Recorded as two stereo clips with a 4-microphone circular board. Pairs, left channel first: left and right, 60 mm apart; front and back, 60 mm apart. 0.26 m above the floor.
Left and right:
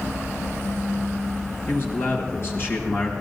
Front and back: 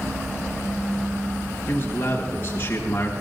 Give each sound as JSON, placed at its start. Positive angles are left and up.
{"t": 1.7, "sound": "a man speaking", "azimuth_deg": 45, "distance_m": 4.0}